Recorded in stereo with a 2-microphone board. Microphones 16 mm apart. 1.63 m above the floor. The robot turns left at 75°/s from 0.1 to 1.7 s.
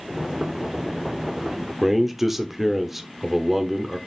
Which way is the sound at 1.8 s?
10° right (ahead or behind).